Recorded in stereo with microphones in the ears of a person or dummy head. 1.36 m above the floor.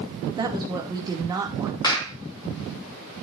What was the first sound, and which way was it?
A woman speaking, 15° right (ahead or behind).